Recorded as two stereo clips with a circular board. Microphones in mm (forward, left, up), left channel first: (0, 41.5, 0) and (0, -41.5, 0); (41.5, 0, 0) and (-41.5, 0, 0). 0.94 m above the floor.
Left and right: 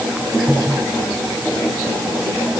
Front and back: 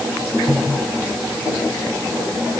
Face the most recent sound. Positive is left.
No sound to turn to.